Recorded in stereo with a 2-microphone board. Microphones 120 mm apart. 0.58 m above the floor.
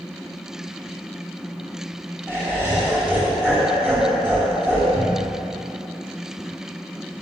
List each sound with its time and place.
2.3 s laughter: 20° right (ahead or behind), 3 m
4.9 s a cupboard door: 10° right (ahead or behind), 1.7 m